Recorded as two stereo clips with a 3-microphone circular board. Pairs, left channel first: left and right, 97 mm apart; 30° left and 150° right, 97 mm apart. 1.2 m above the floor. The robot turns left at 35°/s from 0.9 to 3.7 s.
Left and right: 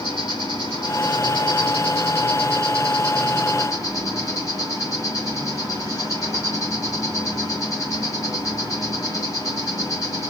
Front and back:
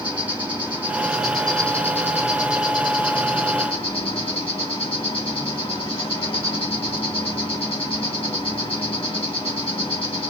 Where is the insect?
135° left, 2.5 m; by 10.3 s 40° left, 2.5 m.